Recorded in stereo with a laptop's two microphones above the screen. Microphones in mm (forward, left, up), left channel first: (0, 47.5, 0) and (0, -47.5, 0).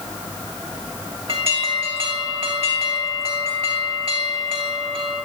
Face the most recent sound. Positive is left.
turn(degrees=-75)  # may be behind; listen again after turning